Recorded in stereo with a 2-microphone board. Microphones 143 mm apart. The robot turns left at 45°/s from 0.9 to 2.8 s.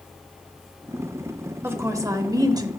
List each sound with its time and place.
1.6 s a woman speaking: 15° right (ahead or behind), 0.9 m; by 2.7 s 25° right (ahead or behind), 0.9 m